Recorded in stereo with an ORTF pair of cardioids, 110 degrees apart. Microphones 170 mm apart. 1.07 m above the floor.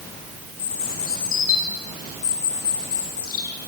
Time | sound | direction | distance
0.6 | a bird | 55° left | 6.5 m